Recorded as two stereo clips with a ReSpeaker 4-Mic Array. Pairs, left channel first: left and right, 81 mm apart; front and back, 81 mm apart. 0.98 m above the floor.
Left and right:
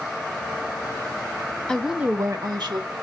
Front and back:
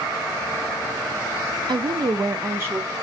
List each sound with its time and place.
1.7 s a woman speaking: 170° left, 0.6 m; by 2.9 s 110° right, 1.1 m